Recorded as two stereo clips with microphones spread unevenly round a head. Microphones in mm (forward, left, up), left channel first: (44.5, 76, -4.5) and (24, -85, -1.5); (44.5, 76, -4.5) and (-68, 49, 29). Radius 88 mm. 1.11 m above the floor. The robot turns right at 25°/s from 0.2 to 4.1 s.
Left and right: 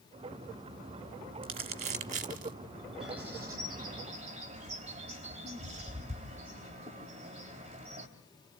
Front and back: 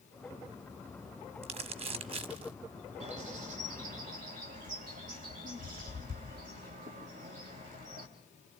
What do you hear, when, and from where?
1.4 s crumpling: 155° right, 1.2 m; by 2.5 s 130° right, 1.2 m
3.0 s a bird: 175° left, 3.5 m; by 8.1 s 155° right, 3.5 m